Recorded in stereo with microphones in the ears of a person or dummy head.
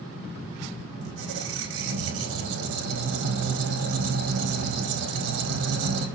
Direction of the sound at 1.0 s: 75° right (ahead or behind).